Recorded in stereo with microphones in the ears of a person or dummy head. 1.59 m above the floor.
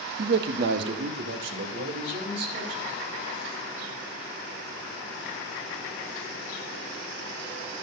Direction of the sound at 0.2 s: 60° right (ahead or behind).